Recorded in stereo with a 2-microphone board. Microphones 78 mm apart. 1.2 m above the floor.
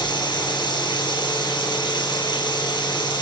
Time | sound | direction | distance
0.0 | running water | 70° left (ahead or behind) | 8 m